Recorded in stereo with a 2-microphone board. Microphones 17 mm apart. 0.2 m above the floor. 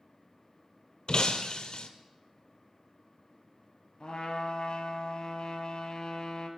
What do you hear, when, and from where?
1.1 s breaking glass: 50° left (ahead or behind), 0.5 m
4.0 s a trumpet: 55° left (ahead or behind), 0.7 m